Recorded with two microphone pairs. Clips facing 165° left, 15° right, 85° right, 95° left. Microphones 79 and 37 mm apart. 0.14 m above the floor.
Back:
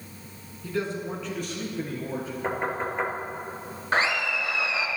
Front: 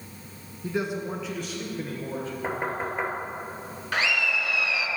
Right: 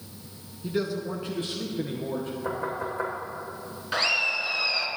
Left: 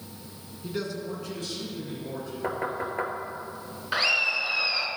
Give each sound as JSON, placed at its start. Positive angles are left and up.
{"t": 0.6, "sound": "a man speaking", "azimuth_deg": -5, "distance_m": 1.1}
{"t": 2.4, "sound": "knocking", "azimuth_deg": 65, "distance_m": 2.5}
{"t": 3.9, "sound": "laughter", "azimuth_deg": 170, "distance_m": 1.4}